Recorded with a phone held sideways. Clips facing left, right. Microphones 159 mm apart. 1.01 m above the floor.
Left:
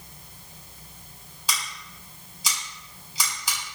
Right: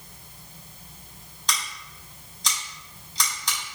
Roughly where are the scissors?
Centre.